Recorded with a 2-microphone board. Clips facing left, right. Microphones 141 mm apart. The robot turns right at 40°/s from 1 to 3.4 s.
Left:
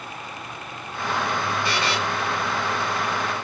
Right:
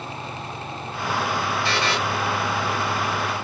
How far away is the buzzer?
About 1.8 m.